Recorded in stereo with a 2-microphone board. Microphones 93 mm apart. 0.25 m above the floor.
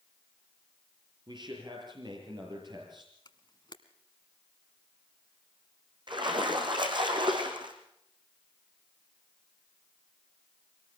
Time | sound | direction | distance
1.3 | a man speaking | 50° right (ahead or behind) | 6 m
3.2 | a camera shutter | 55° left (ahead or behind) | 1.3 m
6.1 | a splash | 55° right (ahead or behind) | 3.5 m